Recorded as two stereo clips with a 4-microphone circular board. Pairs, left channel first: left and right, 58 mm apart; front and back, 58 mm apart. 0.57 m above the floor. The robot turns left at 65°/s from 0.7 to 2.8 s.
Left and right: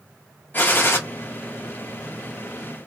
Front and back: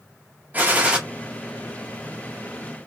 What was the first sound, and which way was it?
A gunshot, 130° left.